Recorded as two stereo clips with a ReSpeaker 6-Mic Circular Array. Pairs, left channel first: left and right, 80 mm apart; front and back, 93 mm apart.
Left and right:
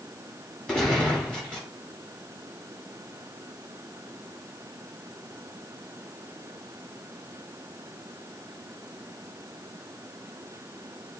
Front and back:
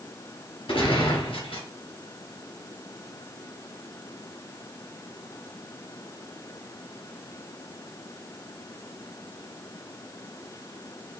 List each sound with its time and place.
0.7 s a gunshot: 5° left, 2 m